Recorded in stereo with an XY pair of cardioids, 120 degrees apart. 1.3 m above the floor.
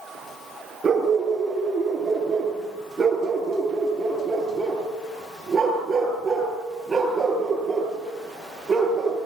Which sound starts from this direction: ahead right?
A dog barking, at 0.8 s.